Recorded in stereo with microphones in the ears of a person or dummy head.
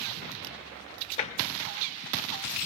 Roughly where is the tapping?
Left.